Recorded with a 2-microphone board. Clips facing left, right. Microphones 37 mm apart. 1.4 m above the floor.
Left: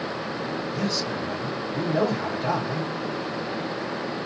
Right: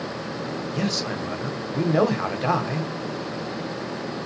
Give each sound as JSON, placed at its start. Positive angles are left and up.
{"t": 0.7, "sound": "a man speaking", "side_deg": -75, "distance_m": 1.0}